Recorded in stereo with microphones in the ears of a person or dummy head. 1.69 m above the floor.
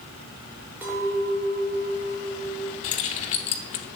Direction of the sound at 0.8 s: 15° right (ahead or behind).